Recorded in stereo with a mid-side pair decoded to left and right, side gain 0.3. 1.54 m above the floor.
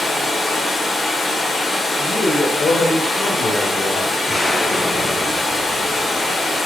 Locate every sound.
0.0 s running water: 65° left, 0.9 m
2.0 s a woman speaking: 70° left, 0.9 m
4.3 s an explosion: 35° left, 0.8 m